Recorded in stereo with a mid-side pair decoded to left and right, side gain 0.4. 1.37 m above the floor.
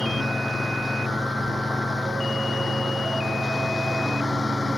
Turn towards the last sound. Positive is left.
turn(degrees=10)